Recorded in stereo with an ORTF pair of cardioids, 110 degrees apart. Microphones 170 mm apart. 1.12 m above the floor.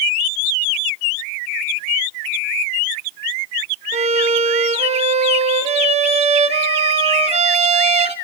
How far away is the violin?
About 1.1 m.